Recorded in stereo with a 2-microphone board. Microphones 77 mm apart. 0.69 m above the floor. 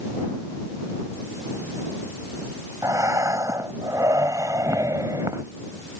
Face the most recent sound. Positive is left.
turn(degrees=-45)  # may be behind; listen again after turning